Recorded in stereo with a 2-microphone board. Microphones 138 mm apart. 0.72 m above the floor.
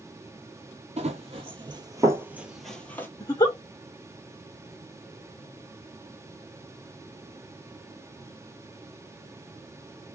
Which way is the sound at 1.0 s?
55° right (ahead or behind).